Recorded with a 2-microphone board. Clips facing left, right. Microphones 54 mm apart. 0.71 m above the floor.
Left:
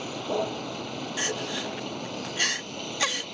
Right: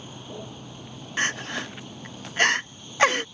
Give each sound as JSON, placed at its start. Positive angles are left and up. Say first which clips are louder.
{"t": 0.0, "sound": "a vehicle", "louder": "left 10 dB", "side_deg": 75}
{"t": 1.2, "sound": "crying", "louder": "right 5 dB", "side_deg": -45}